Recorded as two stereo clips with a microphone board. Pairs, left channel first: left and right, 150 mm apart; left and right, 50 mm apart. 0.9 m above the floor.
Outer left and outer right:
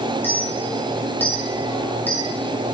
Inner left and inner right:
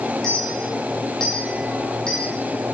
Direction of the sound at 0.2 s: 15° left (ahead or behind).